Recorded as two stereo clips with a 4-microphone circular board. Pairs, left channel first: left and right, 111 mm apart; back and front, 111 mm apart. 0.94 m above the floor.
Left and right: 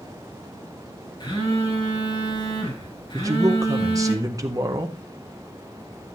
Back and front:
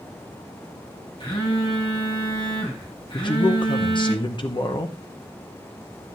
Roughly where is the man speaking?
Behind right.